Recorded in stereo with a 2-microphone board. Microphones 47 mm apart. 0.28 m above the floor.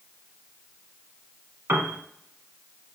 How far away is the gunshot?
I don't hear a gunshot.